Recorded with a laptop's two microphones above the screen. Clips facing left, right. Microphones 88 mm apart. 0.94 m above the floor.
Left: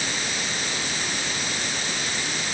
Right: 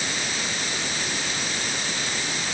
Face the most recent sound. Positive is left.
No sound to turn to.